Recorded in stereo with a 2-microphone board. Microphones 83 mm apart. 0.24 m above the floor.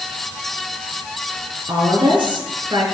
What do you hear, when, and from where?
1.7 s a woman speaking: 70° right (ahead or behind), 4 m